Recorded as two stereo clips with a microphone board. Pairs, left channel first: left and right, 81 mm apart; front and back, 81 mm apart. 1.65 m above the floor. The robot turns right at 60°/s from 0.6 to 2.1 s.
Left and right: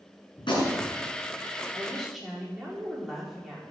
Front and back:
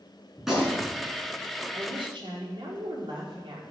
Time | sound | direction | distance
0.4 | a gunshot | 95° left | 6.5 m
1.7 | a woman speaking | 160° left | 5 m